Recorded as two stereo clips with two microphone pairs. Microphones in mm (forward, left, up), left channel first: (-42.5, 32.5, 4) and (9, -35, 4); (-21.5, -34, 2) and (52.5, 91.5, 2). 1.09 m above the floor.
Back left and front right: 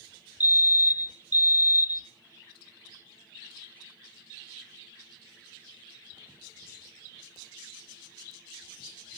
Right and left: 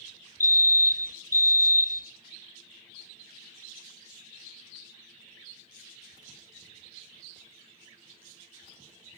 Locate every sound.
0.4 s a fire alarm: 75° right, 1.0 m